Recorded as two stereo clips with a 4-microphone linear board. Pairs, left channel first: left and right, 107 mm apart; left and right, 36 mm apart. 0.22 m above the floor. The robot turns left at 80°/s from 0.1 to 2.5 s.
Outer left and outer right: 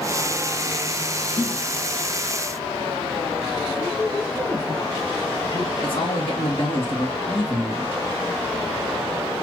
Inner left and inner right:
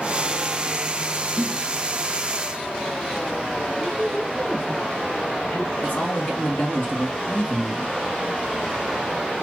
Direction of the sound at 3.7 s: 45° left (ahead or behind).